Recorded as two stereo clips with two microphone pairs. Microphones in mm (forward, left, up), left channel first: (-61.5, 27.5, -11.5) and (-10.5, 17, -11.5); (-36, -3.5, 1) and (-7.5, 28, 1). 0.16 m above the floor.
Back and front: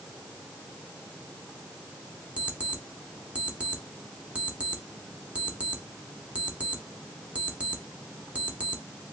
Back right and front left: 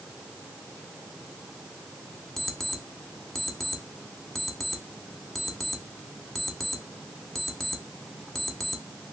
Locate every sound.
2.4 s an alarm clock: 50° right, 0.7 m